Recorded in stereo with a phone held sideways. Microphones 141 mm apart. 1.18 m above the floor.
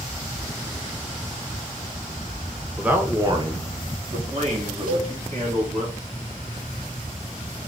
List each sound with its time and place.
2.8 s a man speaking: 5° right (ahead or behind), 0.9 m; by 5.9 s 65° right (ahead or behind), 2.5 m
4.9 s a cowbell: 80° right, 2.5 m